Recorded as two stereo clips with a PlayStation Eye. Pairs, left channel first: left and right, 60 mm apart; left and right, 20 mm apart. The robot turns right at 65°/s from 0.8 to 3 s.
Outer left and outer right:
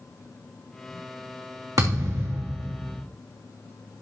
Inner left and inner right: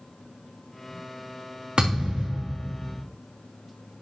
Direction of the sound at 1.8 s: 95° right.